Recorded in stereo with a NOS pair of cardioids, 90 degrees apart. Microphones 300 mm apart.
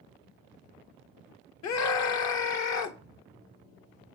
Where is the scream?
65° left, 1.2 m.